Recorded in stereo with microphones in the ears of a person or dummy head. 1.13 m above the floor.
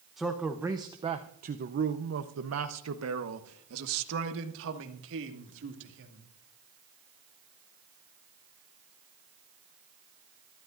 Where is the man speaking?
Centre (ahead or behind), 1.1 m; by 6.3 s 65° right (ahead or behind), 2.5 m.